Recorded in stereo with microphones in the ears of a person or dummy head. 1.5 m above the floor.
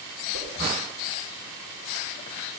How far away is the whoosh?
About 6 m.